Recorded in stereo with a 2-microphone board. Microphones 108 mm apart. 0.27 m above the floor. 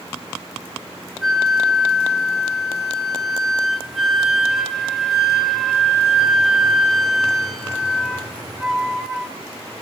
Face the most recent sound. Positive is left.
turn(degrees=0)  # may be behind; listen again after turning